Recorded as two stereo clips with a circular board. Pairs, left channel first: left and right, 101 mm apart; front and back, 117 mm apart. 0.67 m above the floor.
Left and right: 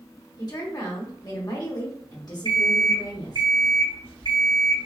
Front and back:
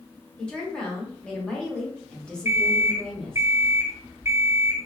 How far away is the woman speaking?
About 1.2 m.